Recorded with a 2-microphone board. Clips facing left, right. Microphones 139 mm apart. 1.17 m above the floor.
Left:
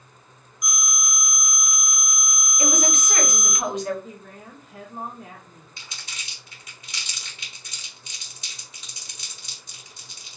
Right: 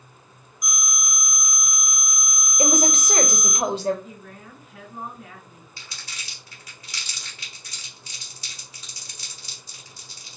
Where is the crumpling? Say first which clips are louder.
Even; 25° left (ahead or behind), 1.4 m.